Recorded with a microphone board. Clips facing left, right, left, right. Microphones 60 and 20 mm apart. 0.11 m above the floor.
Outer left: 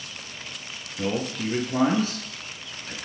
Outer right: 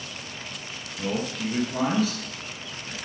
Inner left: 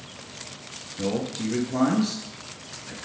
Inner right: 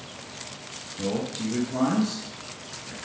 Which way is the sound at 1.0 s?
35° left (ahead or behind).